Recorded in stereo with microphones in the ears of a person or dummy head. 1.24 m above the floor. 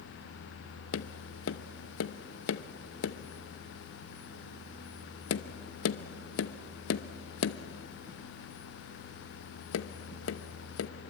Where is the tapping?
70° left (ahead or behind), 0.8 m.